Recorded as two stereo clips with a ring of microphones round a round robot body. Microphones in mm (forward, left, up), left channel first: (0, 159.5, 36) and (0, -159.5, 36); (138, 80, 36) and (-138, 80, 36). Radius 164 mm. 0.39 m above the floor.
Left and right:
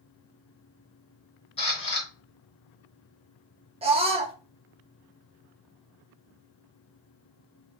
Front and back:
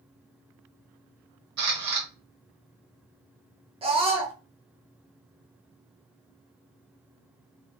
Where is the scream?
135° right, 0.8 m.